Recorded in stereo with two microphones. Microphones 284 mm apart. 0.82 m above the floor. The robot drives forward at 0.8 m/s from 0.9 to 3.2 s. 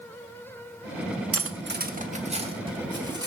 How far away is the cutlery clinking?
About 0.5 m.